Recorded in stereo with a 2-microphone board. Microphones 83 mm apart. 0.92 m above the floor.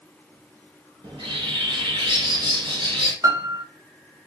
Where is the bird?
70° right (ahead or behind), 1.2 m.